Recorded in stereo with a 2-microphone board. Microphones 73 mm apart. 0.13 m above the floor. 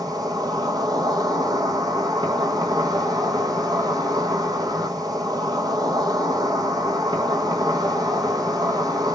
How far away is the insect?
About 0.7 m.